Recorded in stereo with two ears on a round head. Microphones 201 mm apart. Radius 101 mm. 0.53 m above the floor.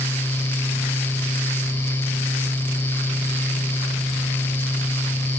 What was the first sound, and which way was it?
Only background noise.